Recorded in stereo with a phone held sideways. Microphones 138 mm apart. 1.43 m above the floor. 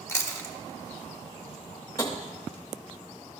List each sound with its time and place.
0.1 s chewing: 20° left (ahead or behind), 0.7 m
2.0 s tapping: 25° left (ahead or behind), 1.0 m